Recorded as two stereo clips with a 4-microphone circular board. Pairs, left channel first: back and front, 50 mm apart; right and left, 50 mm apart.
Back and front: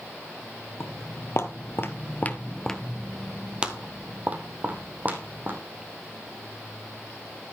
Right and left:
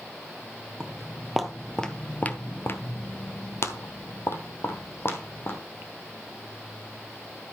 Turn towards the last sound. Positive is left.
turn(degrees=-50)